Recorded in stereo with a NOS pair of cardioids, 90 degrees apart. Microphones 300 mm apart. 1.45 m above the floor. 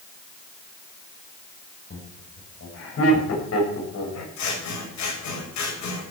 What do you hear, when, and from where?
1.9 s laughter: 40° left, 7 m; by 4.3 s 60° left, 6.5 m
4.4 s scissors: 65° left, 6.5 m